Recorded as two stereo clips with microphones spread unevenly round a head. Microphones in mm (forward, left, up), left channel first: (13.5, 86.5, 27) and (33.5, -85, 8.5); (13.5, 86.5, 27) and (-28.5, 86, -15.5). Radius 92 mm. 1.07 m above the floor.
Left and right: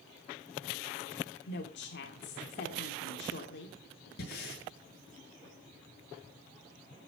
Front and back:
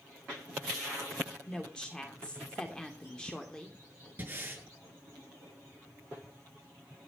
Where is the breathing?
135° left, 7.5 m.